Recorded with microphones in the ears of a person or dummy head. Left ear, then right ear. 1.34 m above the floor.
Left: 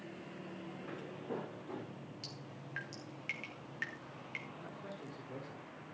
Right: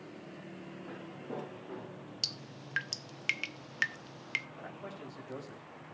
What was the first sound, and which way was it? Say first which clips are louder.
Footsteps: even; 25° left (ahead or behind).